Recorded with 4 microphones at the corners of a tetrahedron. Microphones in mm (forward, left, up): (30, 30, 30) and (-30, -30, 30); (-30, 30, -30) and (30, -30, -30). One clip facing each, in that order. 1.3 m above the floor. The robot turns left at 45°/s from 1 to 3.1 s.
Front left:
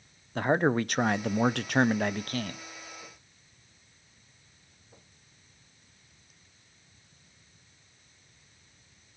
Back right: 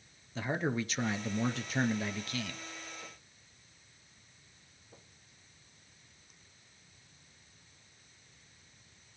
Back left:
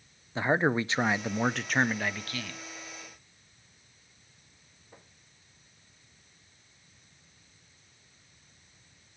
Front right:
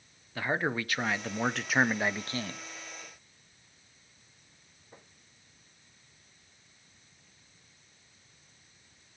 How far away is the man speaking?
About 0.5 m.